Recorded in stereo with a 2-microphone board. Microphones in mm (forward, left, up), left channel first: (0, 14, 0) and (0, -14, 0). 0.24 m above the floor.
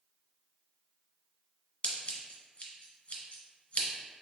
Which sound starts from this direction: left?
Scissors, at 1.8 s.